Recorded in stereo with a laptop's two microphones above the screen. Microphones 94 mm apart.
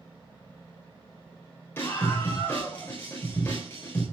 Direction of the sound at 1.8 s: 20° left (ahead or behind).